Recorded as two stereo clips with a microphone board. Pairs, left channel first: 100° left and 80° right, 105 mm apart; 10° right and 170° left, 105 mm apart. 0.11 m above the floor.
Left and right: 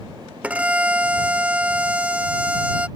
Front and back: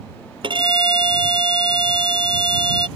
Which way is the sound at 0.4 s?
155° right.